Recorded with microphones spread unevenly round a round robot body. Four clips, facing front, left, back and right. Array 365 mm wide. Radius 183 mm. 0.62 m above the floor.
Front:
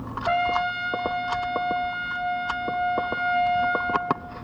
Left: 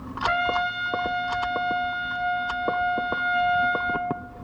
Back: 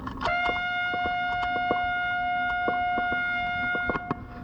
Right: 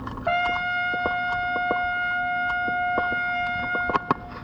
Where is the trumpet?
155° right, 1.2 m.